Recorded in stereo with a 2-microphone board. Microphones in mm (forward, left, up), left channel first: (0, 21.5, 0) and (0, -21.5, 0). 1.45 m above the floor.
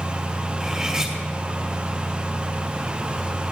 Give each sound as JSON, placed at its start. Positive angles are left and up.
{"t": 0.6, "sound": "cutlery clinking", "side_deg": -15, "distance_m": 3.5}